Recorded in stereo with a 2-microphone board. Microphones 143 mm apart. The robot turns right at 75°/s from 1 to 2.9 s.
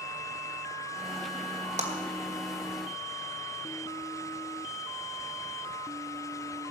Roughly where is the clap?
Right.